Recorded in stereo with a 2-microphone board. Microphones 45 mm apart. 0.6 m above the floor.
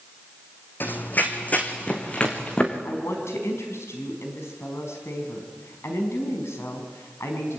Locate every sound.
0.8 s running footsteps: 45° left (ahead or behind), 2 m; by 2.8 s 20° left (ahead or behind), 4 m
2.9 s a woman speaking: 80° left, 4.5 m